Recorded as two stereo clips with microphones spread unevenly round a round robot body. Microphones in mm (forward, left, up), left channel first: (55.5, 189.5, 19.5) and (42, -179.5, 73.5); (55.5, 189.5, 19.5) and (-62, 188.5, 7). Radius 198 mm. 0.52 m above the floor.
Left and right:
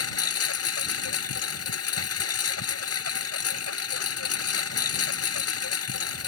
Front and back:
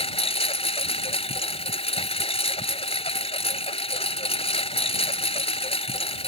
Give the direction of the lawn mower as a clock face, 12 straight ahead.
11 o'clock.